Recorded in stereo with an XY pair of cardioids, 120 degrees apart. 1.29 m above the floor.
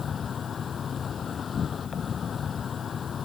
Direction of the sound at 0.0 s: 35° left.